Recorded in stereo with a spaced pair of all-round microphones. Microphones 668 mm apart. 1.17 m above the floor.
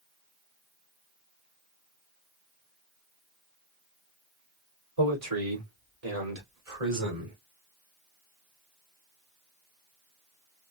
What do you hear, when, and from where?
5.0 s a man speaking: 50° right (ahead or behind), 3 m; by 7.4 s 85° right, 3.5 m